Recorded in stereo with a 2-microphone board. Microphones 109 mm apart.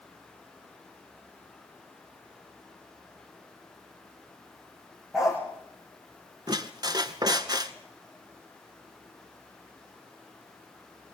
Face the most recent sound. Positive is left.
turn(degrees=-40)  # may be behind; listen again after turning